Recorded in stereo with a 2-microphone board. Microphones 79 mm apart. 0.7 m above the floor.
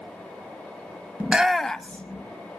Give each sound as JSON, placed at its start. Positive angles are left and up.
{"t": 1.2, "sound": "a shout", "side_deg": -20, "distance_m": 0.6}